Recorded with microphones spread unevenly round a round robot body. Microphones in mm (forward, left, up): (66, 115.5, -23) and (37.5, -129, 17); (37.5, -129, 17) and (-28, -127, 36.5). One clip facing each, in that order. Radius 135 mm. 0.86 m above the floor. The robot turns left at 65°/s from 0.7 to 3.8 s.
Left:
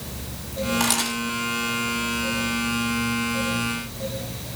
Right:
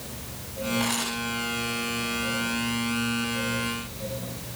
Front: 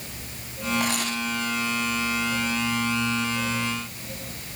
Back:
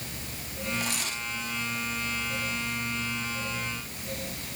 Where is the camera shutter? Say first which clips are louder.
Left 3 dB, front 7 dB; 65° left, 8 m; by 1.2 s 40° left, 8 m.